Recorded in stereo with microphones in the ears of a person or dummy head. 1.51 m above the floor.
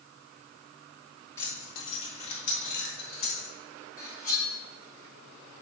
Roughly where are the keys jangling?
Left.